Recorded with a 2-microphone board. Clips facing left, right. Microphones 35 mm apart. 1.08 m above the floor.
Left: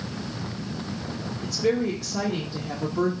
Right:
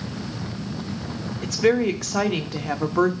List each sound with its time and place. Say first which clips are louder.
1.4 s a woman speaking: right 5 dB; 80° right, 1.2 m